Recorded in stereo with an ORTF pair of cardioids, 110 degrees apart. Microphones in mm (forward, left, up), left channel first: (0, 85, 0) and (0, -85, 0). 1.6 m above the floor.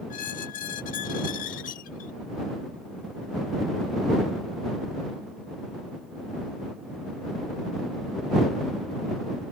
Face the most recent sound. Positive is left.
turn(degrees=60)